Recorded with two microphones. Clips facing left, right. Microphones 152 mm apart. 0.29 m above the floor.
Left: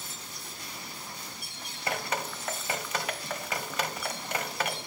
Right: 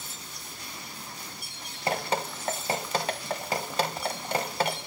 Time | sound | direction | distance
1.9 | dripping | 35° right (ahead or behind) | 0.5 m